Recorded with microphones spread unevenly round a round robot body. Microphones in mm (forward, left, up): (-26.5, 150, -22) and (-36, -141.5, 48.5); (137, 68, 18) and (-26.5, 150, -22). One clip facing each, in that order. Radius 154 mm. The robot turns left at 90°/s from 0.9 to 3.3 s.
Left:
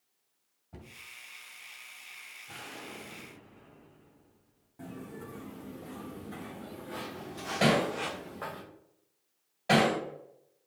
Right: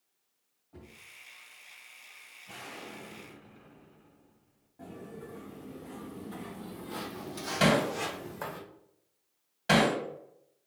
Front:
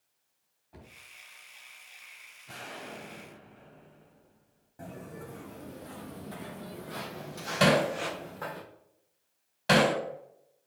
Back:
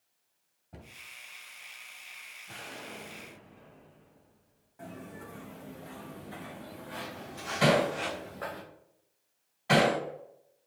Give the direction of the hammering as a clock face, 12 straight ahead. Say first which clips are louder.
Even, front 1 dB; 1 o'clock.